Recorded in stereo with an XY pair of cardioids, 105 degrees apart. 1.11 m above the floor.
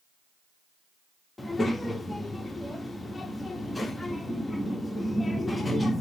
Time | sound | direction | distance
1.4 | a child speaking | 15° left | 0.9 m